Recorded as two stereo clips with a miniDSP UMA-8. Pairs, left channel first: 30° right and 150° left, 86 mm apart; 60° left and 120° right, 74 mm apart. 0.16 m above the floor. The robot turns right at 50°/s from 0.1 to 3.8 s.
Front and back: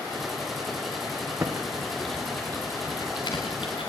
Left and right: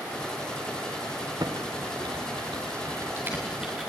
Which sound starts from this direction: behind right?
Typing on a keyboard, at 1.4 s.